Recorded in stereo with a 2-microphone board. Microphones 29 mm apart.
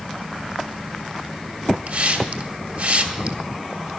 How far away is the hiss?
About 2.5 m.